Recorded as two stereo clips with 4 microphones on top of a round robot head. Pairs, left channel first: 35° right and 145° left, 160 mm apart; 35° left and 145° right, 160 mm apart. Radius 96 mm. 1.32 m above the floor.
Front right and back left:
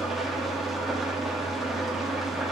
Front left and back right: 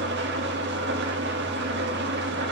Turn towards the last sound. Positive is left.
turn(degrees=-125)